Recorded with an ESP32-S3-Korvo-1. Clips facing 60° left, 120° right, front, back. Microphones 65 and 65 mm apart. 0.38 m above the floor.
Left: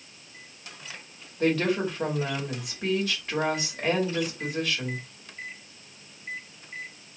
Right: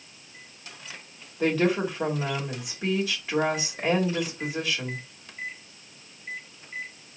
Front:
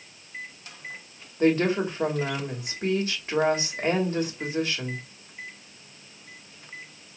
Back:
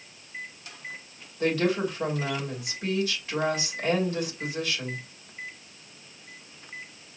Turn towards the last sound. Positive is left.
turn(degrees=-40)